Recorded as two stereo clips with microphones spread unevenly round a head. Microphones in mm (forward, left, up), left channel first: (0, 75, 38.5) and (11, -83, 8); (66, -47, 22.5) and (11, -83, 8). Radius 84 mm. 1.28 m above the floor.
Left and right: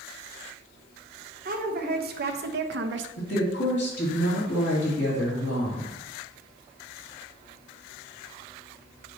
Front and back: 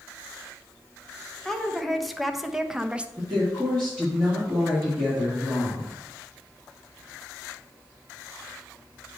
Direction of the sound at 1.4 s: 50° right.